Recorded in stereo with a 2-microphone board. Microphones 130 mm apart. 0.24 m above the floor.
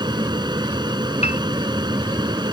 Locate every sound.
0.0 s an aircraft: 35° right (ahead or behind)
1.2 s a piano: 60° left (ahead or behind)